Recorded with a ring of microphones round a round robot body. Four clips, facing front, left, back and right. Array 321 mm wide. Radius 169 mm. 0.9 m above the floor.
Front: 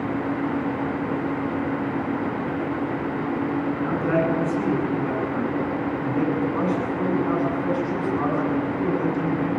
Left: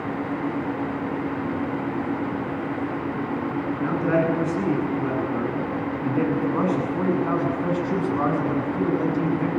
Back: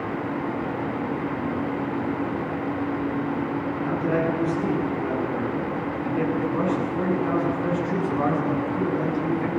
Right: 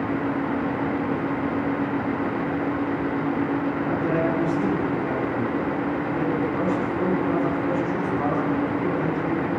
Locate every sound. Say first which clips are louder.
3.8 s a man speaking: left 5 dB, front 1 dB; 60° left, 9.5 m; by 9.5 s 100° left, 9 m